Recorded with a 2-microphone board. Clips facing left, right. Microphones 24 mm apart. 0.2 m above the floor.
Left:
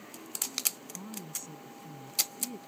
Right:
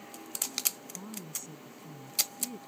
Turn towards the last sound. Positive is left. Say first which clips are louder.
# even
turn(degrees=5)  # may be behind; listen again after turning